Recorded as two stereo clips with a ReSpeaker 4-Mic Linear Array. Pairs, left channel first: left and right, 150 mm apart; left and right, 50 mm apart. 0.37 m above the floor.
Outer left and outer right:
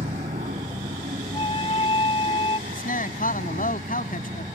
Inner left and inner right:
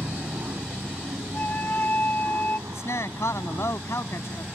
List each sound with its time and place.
0.0 s an aircraft: 60° right (ahead or behind)
1.3 s a flute: 40° left (ahead or behind)
2.7 s a man speaking: 70° left (ahead or behind)